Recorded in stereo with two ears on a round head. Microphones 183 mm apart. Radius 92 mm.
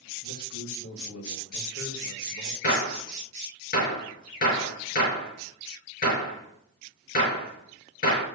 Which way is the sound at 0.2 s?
75° left (ahead or behind).